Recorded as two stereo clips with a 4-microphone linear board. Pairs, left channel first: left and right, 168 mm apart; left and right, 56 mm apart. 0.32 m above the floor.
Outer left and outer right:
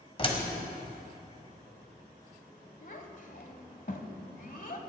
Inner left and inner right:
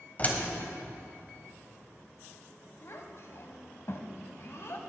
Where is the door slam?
35° left (ahead or behind), 1.5 m.